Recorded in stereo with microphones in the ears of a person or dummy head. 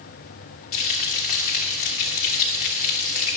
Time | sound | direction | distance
0.7 | frying | 40° left (ahead or behind) | 1.4 m